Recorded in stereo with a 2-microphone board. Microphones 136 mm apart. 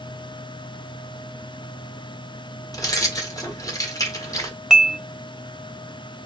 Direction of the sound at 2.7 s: 25° left (ahead or behind).